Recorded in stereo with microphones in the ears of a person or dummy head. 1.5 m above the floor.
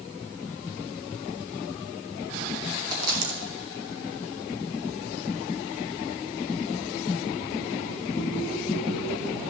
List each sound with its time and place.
2.9 s a dropped coin: 50° right (ahead or behind), 3 m